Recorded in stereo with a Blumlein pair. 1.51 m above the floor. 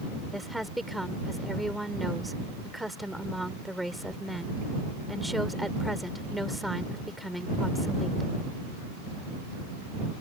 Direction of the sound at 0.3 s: Straight ahead.